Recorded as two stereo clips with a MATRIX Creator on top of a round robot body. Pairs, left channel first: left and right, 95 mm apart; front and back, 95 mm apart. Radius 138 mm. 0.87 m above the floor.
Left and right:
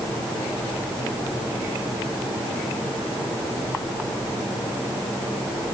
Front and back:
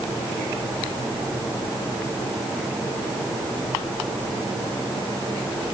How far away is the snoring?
No snoring in this recording.